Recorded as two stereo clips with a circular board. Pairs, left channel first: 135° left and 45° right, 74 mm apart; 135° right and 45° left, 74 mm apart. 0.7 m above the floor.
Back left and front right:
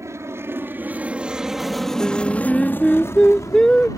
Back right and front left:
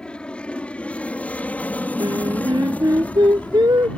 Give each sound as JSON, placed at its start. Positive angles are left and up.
{"t": 0.0, "sound": "an aircraft", "azimuth_deg": -65}
{"t": 2.0, "sound": "singing", "azimuth_deg": 55}